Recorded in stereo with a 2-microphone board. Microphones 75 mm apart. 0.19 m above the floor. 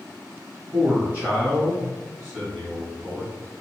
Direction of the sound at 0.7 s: 25° right (ahead or behind).